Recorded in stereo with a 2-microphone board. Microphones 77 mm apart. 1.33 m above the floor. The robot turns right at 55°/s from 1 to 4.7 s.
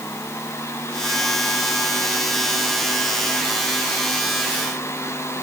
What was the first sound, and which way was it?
Only background noise.